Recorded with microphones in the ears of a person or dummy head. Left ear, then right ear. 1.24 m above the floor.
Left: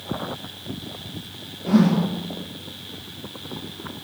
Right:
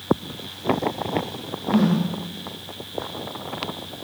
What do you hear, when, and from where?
1.7 s a whoosh: 55° left (ahead or behind), 0.6 m